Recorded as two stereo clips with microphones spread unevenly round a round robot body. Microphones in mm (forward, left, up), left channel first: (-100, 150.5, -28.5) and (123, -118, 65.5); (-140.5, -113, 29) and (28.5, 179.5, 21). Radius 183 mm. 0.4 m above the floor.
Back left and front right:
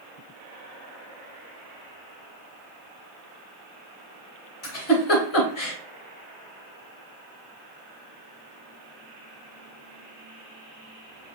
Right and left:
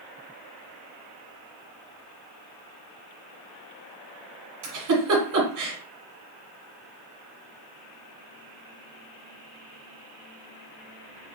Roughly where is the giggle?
Left.